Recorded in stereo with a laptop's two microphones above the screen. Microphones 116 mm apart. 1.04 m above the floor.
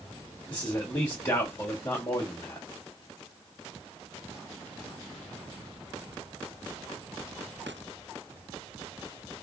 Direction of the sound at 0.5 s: 25° left (ahead or behind).